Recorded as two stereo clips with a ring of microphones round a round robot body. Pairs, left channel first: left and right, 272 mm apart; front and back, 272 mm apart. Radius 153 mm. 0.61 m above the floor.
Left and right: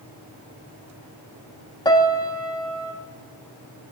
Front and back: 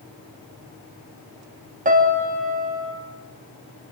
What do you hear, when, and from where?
1.9 s a piano: 155° left, 1.3 m